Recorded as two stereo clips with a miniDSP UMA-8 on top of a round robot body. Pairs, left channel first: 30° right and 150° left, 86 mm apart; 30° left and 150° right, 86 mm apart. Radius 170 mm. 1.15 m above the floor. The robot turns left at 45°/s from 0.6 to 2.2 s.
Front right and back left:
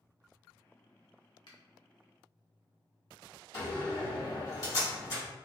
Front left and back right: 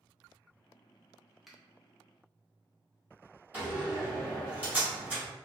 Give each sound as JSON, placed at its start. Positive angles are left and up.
{"t": 1.5, "sound": "a finger snap", "azimuth_deg": -60, "distance_m": 0.7}
{"t": 3.5, "sound": "a door slam", "azimuth_deg": -80, "distance_m": 1.6}